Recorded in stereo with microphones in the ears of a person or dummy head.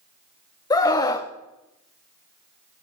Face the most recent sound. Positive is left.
turn(degrees=20)  # may be behind; listen again after turning